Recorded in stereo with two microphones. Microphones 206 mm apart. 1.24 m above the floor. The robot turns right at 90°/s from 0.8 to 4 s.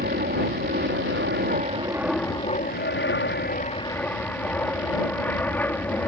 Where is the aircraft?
120° right; by 6.1 s 170° left.